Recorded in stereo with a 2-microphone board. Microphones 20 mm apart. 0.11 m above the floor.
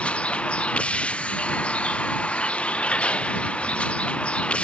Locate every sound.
0.0 s a vehicle: 90° left